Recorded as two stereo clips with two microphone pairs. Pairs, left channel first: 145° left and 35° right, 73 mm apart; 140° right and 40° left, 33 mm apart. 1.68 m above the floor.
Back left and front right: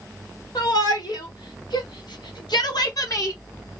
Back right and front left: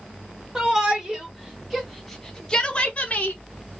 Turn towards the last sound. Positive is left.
turn(degrees=-175)